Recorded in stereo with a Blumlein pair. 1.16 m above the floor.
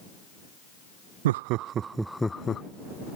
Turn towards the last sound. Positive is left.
turn(degrees=20)